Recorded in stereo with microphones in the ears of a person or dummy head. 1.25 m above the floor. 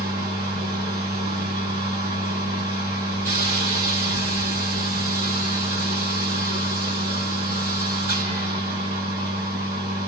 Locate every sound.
0.0 s a machine running: 45° right (ahead or behind), 1.2 m